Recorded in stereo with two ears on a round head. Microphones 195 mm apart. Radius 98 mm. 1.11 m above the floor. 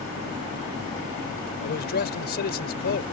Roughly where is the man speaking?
Left.